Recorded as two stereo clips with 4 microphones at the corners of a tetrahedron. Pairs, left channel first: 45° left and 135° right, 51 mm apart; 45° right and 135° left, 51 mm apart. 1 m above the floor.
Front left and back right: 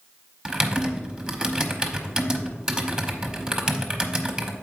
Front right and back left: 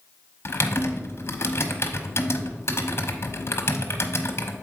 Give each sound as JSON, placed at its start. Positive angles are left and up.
{"t": 0.5, "sound": "typing on a keyboard", "azimuth_deg": -60, "distance_m": 0.9}